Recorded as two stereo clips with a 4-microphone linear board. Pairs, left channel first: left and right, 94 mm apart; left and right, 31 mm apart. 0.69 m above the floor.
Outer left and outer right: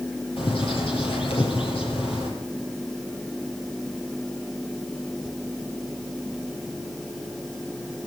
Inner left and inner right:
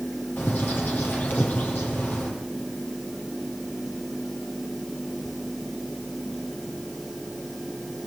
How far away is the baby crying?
No baby crying in this recording.